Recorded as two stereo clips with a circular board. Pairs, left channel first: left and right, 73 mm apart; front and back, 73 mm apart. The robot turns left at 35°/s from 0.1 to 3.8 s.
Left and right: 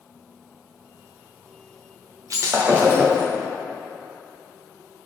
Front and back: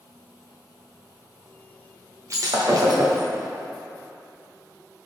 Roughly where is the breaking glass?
Behind right.